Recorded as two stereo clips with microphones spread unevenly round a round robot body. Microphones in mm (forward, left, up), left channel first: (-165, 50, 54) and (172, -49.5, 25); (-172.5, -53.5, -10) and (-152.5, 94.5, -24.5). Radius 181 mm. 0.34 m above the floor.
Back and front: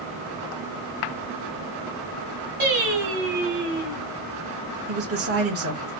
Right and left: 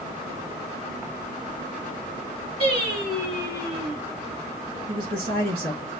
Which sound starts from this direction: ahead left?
A woman speaking, at 4.9 s.